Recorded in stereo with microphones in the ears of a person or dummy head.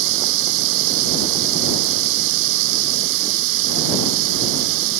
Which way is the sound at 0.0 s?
75° right (ahead or behind).